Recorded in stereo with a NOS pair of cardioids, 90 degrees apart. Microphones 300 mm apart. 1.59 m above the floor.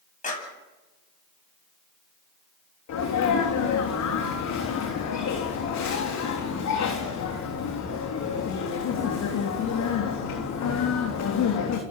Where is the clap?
25° left, 10 m.